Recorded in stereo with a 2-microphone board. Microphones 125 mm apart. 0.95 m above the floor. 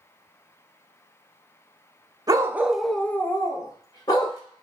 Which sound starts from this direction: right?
A dog barking, at 2.3 s.